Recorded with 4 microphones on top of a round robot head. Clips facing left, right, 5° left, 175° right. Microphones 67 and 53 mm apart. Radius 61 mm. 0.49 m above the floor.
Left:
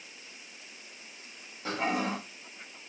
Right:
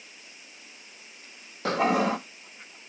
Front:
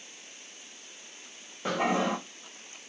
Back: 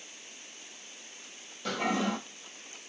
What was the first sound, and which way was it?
A toilet flushing, 65° right.